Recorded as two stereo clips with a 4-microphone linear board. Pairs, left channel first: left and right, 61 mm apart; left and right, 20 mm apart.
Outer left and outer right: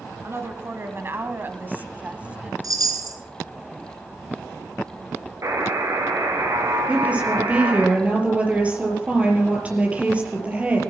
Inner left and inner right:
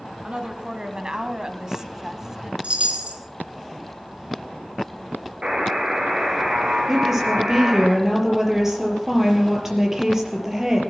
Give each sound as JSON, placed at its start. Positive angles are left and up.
{"t": 0.2, "sound": "a woman speaking", "side_deg": -45, "distance_m": 2.0}
{"t": 2.6, "sound": "a chime", "side_deg": -75, "distance_m": 1.8}
{"t": 5.4, "sound": "a buzzer", "side_deg": -60, "distance_m": 4.5}
{"t": 6.9, "sound": "a woman speaking", "side_deg": -20, "distance_m": 5.0}